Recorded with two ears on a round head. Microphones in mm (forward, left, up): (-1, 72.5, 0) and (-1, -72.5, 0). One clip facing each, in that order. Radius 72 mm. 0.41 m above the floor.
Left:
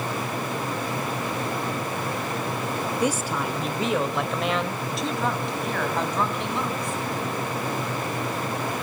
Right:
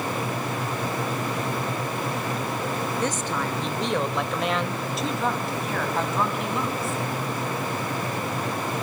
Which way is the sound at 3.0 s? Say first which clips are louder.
Left 2 dB; 10° left (ahead or behind).